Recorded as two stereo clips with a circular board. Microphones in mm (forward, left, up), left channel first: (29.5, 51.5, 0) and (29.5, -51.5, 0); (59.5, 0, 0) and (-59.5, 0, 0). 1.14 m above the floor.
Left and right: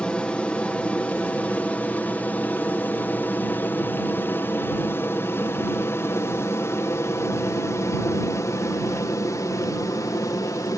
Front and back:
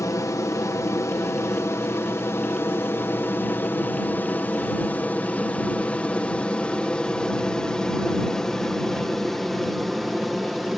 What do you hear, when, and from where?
0.0 s an aircraft: 20° left; by 10.8 s 95° left